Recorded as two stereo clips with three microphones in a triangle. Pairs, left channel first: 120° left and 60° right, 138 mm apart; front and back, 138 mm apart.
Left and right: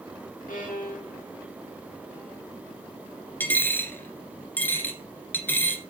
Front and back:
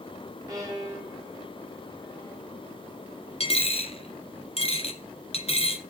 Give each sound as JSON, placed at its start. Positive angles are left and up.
{"t": 0.5, "sound": "a violin", "azimuth_deg": 115, "distance_m": 3.5}
{"t": 3.4, "sound": "a dropped coin", "azimuth_deg": 45, "distance_m": 1.8}